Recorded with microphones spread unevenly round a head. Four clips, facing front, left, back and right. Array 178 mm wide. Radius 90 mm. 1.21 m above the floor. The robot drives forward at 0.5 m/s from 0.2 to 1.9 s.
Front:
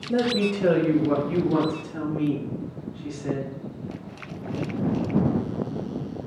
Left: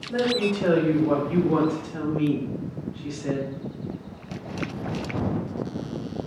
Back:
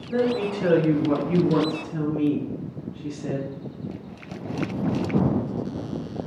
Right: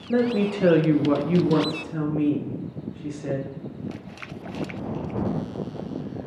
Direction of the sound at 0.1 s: 60° right.